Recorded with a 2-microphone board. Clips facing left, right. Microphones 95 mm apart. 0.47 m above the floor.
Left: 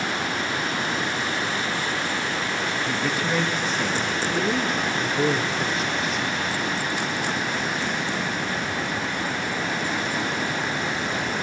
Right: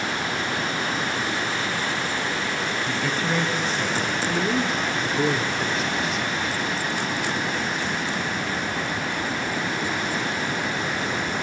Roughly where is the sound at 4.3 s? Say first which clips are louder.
Even; centre.